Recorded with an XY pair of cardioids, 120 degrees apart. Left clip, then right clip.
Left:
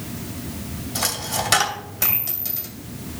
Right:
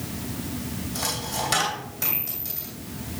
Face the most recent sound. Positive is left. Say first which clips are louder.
# left 4 dB
turn(degrees=40)